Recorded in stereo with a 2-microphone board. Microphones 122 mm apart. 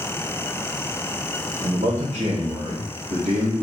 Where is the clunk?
I don't hear a clunk.